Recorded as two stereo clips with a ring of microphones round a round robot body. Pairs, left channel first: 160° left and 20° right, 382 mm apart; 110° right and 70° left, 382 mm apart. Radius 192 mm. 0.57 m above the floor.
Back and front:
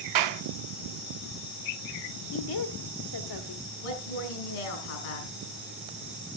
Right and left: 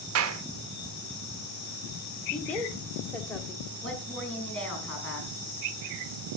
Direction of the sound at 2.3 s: 160° left.